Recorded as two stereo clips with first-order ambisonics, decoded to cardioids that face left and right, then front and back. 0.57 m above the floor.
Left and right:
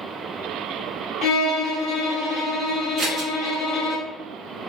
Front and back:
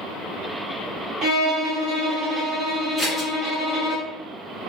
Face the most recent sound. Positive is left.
turn(degrees=-80)